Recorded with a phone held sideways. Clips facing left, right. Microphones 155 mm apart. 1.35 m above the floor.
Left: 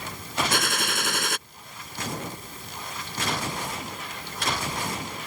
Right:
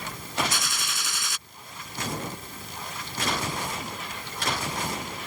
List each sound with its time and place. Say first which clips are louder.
0.5 s a gunshot: left 7 dB; 65° left (ahead or behind)